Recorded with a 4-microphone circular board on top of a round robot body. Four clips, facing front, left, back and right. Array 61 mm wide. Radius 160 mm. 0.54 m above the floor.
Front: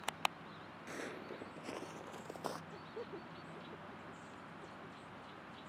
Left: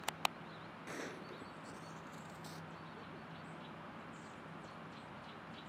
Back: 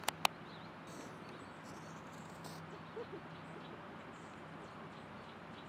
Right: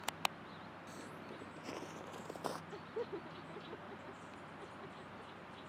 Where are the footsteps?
55° left; by 2.6 s 50° right.